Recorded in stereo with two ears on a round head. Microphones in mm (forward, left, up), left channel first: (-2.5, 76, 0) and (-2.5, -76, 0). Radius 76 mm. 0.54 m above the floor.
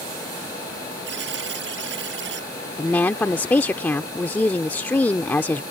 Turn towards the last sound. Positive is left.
turn(degrees=10)  # may be behind; listen again after turning